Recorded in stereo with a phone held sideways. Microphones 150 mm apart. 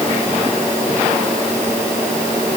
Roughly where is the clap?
I don't hear a clap.